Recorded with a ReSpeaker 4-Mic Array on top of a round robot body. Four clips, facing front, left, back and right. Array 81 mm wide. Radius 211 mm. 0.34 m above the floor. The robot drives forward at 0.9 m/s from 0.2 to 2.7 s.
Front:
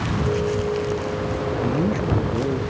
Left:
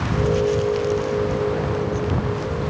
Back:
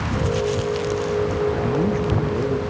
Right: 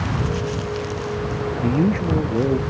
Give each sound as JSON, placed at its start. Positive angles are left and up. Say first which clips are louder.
{"t": 1.6, "sound": "a man speaking", "louder": "right 3 dB, back 1 dB", "azimuth_deg": -85}